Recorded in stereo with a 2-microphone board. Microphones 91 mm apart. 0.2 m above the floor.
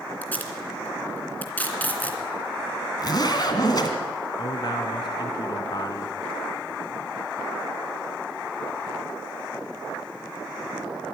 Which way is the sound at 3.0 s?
50° left (ahead or behind).